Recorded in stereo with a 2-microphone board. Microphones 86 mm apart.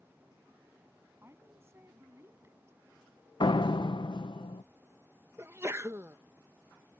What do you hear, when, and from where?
1.2 s a woman speaking: 30° right (ahead or behind)
3.4 s a door slam: 65° left (ahead or behind)
5.4 s a sneeze: 30° right (ahead or behind)